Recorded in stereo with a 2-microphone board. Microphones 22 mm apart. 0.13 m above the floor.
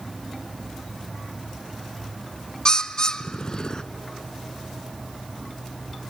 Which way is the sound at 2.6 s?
30° left (ahead or behind).